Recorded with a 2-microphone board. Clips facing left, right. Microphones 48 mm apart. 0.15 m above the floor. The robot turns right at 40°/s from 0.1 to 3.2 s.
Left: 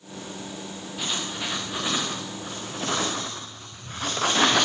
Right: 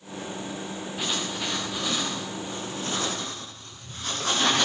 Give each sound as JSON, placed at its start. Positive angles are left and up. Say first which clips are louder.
{"t": 1.0, "sound": "writing", "louder": "even", "side_deg": -10, "distance_m": 9.5}